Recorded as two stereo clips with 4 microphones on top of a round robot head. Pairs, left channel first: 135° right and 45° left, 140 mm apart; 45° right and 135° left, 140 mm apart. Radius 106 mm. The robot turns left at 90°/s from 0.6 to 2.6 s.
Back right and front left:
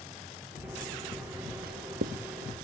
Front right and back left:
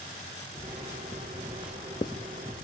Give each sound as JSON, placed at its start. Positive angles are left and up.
{"t": 1.6, "sound": "writing", "azimuth_deg": 55}